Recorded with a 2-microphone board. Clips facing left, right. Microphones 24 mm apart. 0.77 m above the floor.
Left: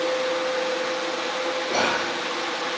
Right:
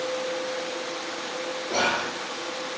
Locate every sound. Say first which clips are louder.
1.7 s whispering: even; 20° left (ahead or behind), 1.1 m